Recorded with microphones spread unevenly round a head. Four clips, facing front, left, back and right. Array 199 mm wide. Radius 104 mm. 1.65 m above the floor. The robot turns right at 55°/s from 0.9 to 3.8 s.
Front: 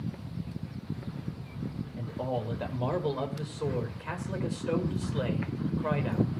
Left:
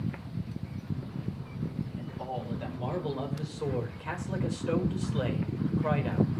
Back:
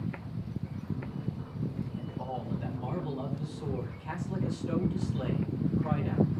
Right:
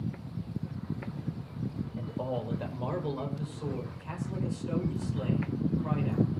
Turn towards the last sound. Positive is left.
turn(degrees=45)